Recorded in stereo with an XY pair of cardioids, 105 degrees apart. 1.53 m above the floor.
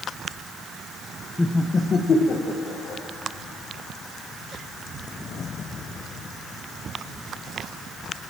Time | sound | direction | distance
1.4 | laughter | 15° left | 1.0 m